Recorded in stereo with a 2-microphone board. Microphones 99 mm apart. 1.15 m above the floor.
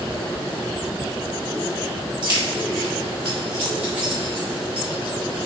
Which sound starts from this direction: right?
Keys jangling, at 2.2 s.